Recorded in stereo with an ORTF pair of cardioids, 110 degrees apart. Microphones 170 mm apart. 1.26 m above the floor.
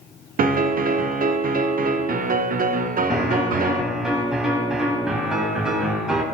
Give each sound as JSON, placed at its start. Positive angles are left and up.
{"t": 0.4, "sound": "a piano", "azimuth_deg": -55, "distance_m": 0.8}
{"t": 3.1, "sound": "a piano", "azimuth_deg": -5, "distance_m": 3.0}